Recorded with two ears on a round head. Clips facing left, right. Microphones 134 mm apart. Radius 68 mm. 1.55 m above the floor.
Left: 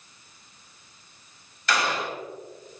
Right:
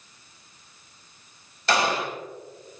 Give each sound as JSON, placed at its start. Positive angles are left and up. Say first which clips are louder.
{"t": 1.7, "sound": "a gunshot", "louder": "right 3 dB", "side_deg": -30, "distance_m": 3.5}